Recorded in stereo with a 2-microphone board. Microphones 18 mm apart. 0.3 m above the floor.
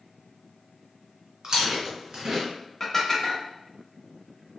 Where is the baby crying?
I don't hear a baby crying.